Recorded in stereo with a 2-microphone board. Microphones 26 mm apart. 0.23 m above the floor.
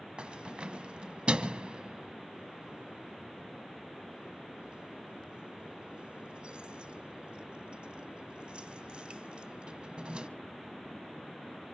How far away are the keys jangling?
About 1.2 m.